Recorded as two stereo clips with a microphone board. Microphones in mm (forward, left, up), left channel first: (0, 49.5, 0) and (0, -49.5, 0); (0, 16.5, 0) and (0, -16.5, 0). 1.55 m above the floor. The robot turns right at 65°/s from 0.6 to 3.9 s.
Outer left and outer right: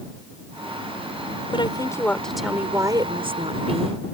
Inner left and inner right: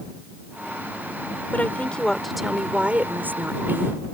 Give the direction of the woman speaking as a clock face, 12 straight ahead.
8 o'clock.